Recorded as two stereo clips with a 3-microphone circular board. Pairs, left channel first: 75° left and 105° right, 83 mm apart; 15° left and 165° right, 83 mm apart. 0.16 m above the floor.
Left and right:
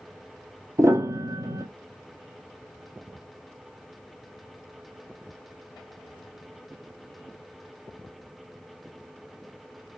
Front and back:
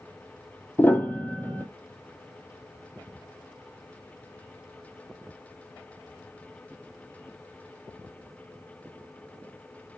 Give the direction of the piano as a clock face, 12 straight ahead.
2 o'clock.